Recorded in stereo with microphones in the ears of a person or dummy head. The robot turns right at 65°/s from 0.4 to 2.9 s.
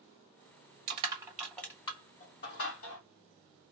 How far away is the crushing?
About 1.7 m.